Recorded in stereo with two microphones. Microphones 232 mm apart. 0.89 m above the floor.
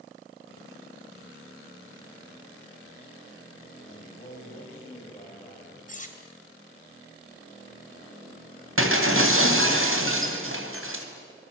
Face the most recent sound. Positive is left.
turn(degrees=-65)  # may be behind; listen again after turning